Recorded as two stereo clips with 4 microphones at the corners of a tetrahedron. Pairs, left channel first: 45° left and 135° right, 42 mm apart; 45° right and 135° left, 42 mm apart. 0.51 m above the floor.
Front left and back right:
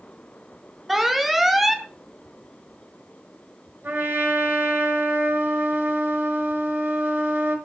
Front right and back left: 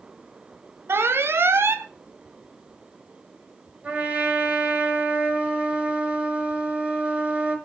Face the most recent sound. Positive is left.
turn(degrees=-170)